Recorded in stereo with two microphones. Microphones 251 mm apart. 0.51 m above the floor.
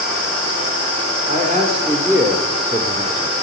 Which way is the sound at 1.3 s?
30° right (ahead or behind).